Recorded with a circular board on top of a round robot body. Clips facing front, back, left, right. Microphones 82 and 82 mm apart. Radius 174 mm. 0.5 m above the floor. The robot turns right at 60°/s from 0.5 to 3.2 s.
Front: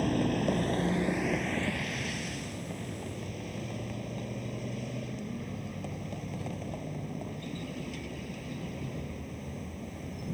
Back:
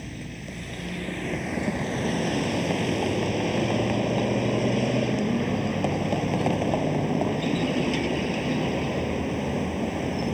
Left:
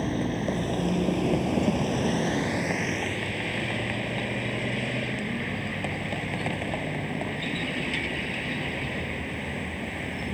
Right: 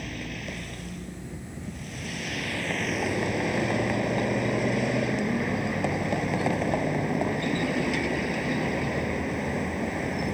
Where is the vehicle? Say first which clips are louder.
Front 10 dB, left 9 dB; 40° left; by 10.3 s 160° right.